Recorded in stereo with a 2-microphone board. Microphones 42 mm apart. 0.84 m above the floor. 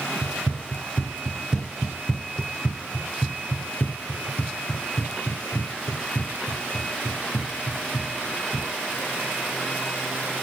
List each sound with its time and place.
0.2 s running footsteps: 45° right (ahead or behind), 1.4 m; by 8.7 s 75° left (ahead or behind), 4.5 m